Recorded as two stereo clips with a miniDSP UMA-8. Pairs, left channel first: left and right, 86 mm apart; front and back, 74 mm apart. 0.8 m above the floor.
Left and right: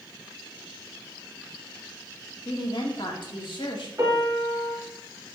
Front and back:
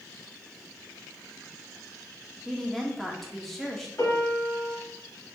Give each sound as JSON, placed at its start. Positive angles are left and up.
{"t": 2.5, "sound": "a woman speaking", "azimuth_deg": 85, "distance_m": 1.9}
{"t": 4.0, "sound": "a piano", "azimuth_deg": -40, "distance_m": 3.0}